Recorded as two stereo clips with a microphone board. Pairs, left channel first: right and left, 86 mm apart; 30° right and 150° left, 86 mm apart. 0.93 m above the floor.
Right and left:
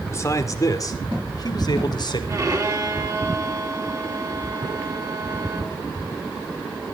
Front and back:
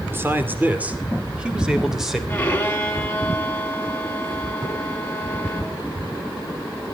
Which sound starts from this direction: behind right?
A man speaking, at 0.1 s.